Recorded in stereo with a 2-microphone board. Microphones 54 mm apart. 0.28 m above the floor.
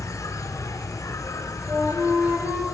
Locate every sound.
0.0 s an insect: 80° left, 1.3 m
1.7 s a flute: 55° right (ahead or behind), 3 m